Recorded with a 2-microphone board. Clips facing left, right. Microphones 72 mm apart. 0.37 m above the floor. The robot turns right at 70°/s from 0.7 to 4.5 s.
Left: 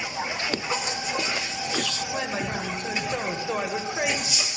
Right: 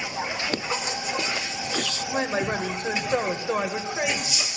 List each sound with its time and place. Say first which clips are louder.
2.1 s a man speaking: right 3 dB; 125° right, 1.7 m; by 4.5 s 40° left, 1.7 m